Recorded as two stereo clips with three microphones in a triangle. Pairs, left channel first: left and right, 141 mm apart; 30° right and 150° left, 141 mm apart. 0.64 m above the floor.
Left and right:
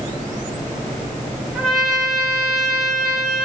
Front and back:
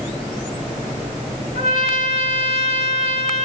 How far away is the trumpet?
About 1.4 m.